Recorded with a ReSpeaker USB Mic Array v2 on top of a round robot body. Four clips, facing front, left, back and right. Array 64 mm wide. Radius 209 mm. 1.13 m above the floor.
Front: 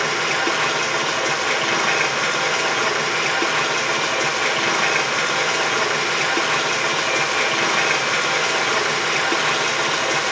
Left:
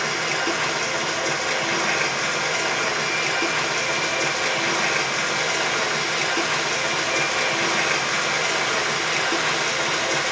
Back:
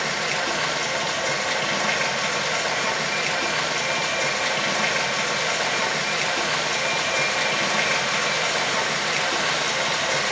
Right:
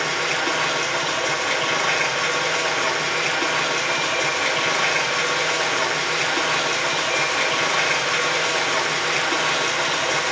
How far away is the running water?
About 3.5 m.